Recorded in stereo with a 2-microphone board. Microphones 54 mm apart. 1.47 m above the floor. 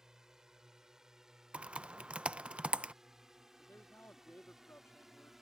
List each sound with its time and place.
0.0 s a drone: 10° right (ahead or behind); by 5.4 s 5° right (ahead or behind)
1.5 s typing on a keyboard: 20° right (ahead or behind)
3.6 s a man speaking: 40° left (ahead or behind)